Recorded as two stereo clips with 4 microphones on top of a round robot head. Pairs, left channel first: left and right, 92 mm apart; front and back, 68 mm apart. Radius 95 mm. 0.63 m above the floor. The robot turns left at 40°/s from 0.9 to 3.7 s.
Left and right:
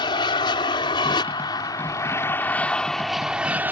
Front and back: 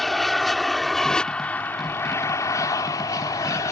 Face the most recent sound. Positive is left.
turn(degrees=-25)